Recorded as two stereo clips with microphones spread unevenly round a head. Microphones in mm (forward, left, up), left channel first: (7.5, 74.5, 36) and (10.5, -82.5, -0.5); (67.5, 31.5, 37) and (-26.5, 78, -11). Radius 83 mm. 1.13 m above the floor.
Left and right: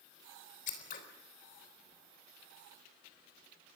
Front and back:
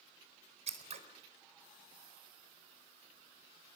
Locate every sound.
0.7 s scissors: 135° left, 4 m